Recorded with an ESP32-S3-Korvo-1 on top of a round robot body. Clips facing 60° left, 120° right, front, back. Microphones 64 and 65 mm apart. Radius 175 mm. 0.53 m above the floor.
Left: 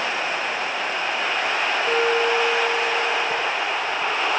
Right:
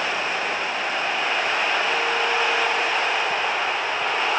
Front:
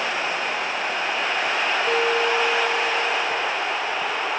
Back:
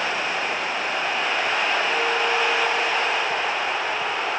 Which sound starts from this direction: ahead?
A guitar, at 1.9 s.